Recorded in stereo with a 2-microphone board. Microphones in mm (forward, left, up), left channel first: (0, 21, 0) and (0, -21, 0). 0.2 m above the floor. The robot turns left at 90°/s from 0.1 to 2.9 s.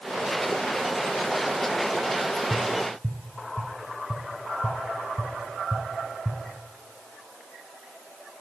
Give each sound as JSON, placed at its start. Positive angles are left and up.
{"t": 2.5, "sound": "tapping", "side_deg": 25, "distance_m": 1.7}